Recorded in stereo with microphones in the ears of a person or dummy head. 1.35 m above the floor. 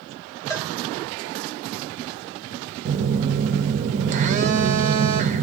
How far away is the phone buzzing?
About 0.5 m.